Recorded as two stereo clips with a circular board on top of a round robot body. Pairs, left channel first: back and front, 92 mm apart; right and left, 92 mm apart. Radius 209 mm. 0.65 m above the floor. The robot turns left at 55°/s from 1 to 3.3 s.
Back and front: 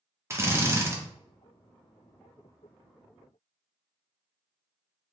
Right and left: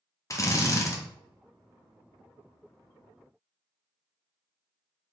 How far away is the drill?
About 0.9 m.